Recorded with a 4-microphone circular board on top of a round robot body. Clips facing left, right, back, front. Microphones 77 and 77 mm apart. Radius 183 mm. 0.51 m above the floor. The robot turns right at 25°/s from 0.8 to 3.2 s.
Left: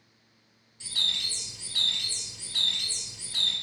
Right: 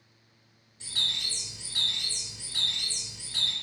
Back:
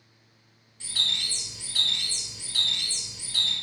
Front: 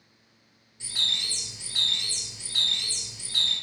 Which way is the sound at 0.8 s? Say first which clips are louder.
Left 1 dB, even; 65° right.